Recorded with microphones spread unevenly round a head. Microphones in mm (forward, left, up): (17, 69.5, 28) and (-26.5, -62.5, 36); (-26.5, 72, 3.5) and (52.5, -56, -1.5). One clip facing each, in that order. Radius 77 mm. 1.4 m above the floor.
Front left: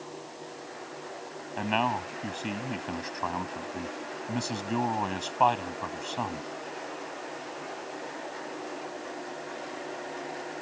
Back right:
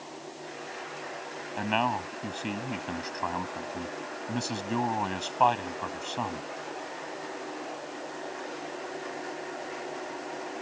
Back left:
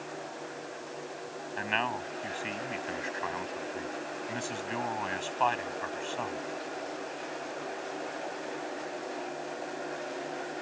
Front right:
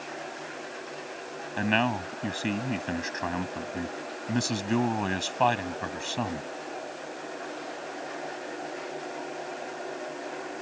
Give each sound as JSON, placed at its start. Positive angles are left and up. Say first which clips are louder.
{"t": 1.6, "sound": "a man speaking", "louder": "even, front right 7 dB", "azimuth_deg": -20}